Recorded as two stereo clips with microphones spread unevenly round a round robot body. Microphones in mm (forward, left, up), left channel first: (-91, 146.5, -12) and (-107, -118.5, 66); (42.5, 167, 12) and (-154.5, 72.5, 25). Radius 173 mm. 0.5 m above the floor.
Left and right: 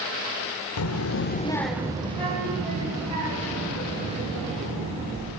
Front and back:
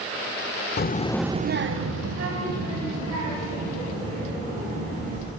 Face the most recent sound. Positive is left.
turn(degrees=-155)